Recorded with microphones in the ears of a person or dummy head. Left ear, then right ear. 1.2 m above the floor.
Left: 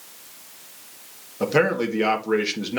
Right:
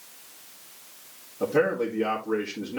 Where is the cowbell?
I don't hear a cowbell.